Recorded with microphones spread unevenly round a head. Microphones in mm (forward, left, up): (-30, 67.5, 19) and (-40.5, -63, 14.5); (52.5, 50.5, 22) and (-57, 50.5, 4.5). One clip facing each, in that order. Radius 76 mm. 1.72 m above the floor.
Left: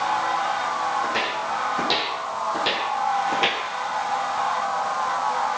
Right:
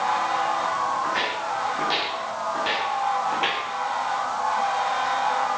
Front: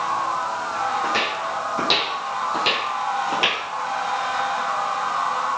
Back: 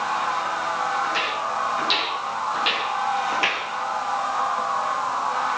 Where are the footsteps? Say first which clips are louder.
Left 1 dB, front 1 dB; 20° left, 5 m; by 3.6 s 60° left, 2 m.